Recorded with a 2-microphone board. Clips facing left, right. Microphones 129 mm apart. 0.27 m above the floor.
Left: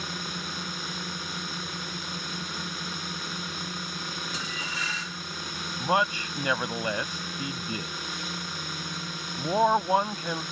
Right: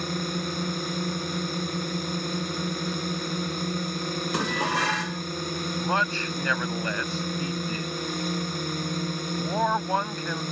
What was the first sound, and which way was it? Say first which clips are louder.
A drone: right 7 dB; 45° right (ahead or behind).